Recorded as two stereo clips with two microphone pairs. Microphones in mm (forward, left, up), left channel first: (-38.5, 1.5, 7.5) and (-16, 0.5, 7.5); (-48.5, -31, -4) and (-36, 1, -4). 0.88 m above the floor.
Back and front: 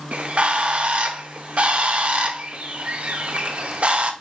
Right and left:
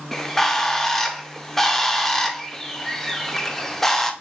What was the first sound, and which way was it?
A bird, 40° right.